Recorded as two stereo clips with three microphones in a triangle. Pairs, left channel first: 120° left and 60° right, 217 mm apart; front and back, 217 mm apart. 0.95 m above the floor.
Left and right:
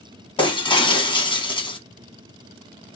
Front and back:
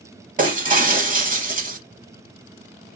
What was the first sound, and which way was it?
Breaking glass, 170° left.